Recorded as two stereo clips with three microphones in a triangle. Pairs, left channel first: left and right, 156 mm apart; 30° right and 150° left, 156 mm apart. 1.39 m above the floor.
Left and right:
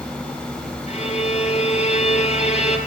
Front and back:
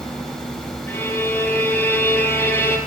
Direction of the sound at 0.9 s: 45° left.